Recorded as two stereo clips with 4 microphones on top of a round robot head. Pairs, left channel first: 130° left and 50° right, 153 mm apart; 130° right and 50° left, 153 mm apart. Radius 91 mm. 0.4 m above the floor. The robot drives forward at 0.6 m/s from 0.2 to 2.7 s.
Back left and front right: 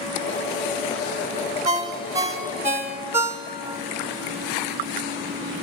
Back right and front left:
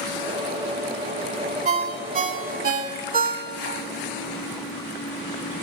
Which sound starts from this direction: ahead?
A ringtone, at 1.6 s.